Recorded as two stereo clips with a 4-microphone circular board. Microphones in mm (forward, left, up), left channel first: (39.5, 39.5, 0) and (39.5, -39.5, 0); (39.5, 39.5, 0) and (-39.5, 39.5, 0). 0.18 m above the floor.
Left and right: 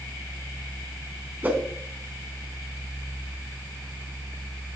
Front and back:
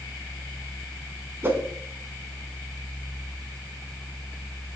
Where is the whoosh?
140° right, 1.1 m.